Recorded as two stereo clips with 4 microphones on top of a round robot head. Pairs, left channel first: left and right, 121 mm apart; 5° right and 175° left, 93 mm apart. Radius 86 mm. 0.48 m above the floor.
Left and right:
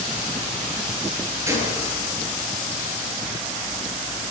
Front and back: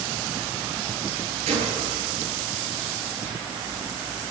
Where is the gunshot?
160° right, 8 m.